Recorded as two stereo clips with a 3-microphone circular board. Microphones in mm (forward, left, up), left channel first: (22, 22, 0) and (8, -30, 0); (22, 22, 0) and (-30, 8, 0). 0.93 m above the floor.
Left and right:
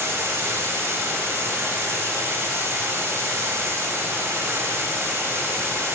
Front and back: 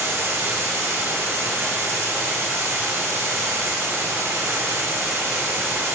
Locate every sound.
0.0 s running water: 140° right, 1.4 m